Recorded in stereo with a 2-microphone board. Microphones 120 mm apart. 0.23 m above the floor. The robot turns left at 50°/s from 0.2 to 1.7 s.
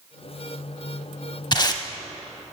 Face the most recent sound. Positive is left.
turn(degrees=35)  # may be behind; listen again after turning